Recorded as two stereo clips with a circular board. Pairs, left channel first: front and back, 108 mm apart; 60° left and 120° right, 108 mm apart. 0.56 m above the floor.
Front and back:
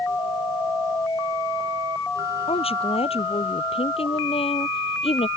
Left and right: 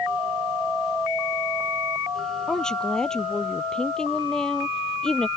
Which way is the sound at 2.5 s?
25° right.